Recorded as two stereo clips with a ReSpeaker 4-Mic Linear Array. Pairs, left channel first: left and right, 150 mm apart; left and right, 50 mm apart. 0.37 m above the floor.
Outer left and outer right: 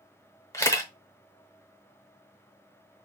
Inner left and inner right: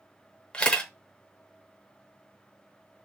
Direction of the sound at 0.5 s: 20° left (ahead or behind).